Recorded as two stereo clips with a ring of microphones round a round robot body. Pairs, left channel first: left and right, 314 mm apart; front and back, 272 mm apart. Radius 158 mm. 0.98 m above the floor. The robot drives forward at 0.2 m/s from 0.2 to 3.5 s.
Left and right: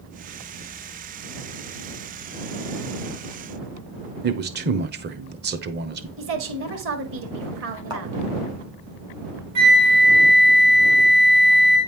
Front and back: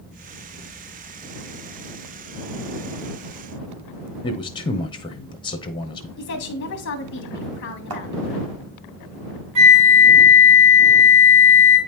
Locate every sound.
4.2 s a man speaking: 60° right, 0.8 m
6.2 s a woman speaking: 45° right, 1.5 m
7.9 s a thud: 165° right, 2 m
9.6 s a flute: 150° right, 2 m